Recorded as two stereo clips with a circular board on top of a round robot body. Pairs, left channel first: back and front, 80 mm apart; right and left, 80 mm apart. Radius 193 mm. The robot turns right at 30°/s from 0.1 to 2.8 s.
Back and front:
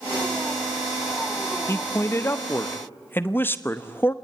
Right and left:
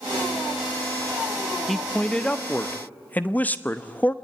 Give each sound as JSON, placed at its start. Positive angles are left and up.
{"t": 1.7, "sound": "a man speaking", "azimuth_deg": -175, "distance_m": 1.4}